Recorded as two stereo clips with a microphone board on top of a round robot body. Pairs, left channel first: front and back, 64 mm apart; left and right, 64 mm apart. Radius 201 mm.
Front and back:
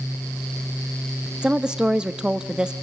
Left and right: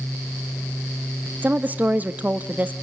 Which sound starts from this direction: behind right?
A woman speaking, at 1.4 s.